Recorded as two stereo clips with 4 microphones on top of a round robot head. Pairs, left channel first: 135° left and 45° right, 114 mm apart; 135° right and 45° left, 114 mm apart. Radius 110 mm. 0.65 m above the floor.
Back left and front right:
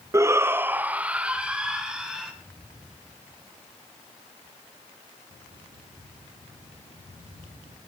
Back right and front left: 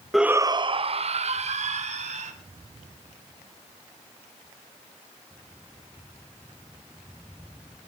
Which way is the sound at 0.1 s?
45° right.